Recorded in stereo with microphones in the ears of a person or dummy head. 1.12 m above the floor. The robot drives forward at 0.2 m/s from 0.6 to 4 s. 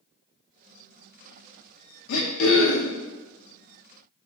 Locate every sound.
2.1 s throat clearing: 80° left, 0.5 m; by 3.0 s 60° left (ahead or behind), 0.6 m